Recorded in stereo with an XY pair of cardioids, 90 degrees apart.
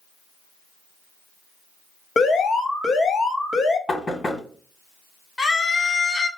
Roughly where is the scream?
Ahead left.